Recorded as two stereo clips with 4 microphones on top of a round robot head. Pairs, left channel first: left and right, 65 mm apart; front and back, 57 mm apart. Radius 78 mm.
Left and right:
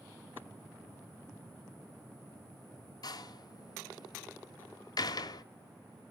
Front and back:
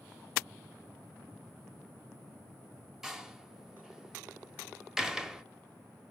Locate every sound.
3.0 s a door slam: 95° left, 1.3 m